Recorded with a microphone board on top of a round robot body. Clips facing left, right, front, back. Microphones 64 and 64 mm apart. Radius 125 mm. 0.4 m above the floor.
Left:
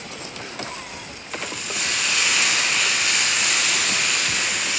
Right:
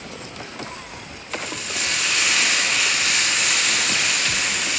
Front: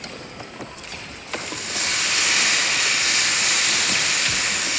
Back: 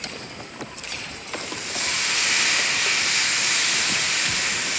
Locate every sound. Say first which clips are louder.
1.3 s frying: right 1 dB, front 2 dB; straight ahead, 3 m